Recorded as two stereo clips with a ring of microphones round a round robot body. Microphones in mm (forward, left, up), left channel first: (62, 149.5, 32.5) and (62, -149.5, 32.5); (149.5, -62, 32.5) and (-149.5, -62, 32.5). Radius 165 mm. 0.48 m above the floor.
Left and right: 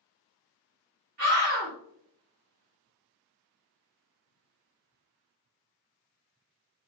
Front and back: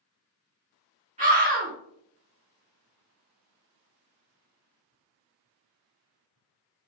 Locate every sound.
1.2 s a scream: 130° right, 1.6 m